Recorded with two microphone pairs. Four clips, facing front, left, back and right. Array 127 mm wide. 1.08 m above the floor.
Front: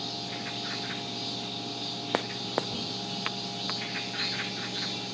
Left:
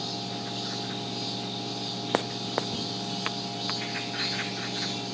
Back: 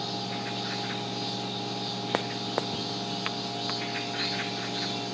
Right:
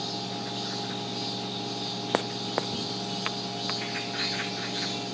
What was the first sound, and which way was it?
Only background noise.